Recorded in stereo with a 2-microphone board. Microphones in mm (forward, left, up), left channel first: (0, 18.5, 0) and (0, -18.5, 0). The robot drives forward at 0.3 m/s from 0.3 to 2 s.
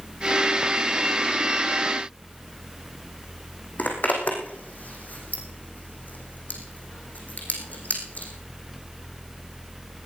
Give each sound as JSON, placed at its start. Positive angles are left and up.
{"t": 3.8, "sound": "a zipper", "side_deg": 45, "distance_m": 3.5}